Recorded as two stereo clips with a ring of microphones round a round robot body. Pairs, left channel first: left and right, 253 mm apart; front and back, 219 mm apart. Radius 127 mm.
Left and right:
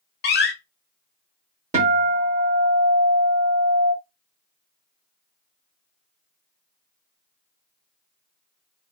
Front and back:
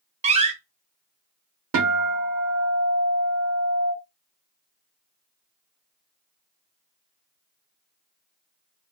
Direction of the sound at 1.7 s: 155° right.